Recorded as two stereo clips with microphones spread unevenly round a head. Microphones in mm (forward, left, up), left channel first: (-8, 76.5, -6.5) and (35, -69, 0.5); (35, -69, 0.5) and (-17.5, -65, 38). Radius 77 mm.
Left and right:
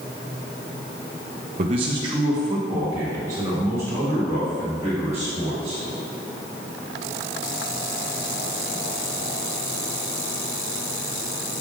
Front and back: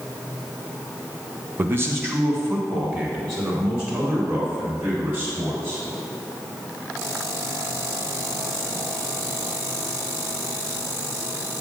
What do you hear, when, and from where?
1.6 s a man speaking: 120° right, 0.5 m; by 5.8 s 145° right, 6.5 m